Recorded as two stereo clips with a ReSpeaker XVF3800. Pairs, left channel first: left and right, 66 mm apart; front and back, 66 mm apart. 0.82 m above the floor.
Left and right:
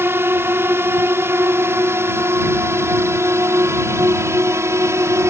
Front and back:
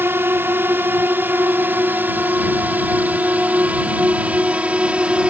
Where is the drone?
135° right; by 5.3 s 115° right.